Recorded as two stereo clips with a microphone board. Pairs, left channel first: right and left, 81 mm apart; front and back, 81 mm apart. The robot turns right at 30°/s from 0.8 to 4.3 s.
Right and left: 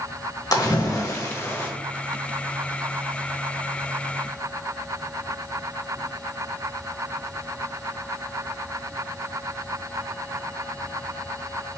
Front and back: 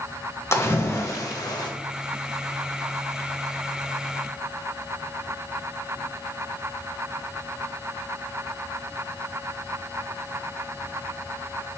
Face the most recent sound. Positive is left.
turn(degrees=50)